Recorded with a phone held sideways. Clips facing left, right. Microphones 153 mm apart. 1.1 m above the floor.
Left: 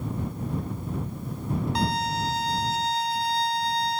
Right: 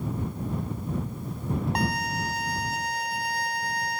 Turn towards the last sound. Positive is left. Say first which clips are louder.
# left 2 dB
turn(degrees=-60)  # may be behind; listen again after turning